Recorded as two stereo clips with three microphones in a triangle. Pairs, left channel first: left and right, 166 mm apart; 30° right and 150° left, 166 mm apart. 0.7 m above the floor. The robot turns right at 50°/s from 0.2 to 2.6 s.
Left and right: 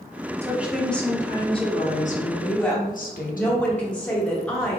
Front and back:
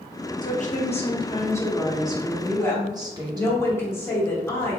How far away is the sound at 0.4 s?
About 0.8 m.